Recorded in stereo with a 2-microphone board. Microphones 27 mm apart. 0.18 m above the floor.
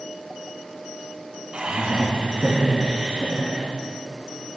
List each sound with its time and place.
1.5 s laughter: 50° right (ahead or behind), 2 m